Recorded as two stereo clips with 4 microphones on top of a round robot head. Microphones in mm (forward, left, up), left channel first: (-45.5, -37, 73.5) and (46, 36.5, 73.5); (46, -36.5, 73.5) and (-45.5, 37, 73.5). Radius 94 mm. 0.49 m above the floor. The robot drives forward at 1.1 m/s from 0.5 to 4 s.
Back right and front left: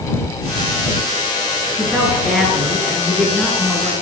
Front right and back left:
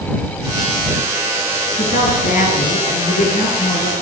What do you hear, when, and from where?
1.8 s a woman speaking: 45° right, 9.5 m; by 3.9 s 60° right, 8 m